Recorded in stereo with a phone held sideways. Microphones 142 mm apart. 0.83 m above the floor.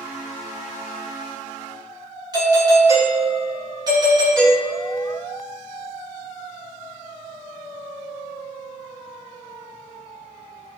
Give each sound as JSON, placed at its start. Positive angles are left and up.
{"t": 2.3, "sound": "a doorbell", "side_deg": -30, "distance_m": 1.6}